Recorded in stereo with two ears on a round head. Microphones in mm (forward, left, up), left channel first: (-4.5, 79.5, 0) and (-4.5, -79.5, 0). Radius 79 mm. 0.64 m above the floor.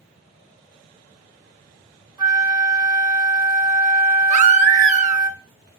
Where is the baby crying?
45° right (ahead or behind), 0.7 m.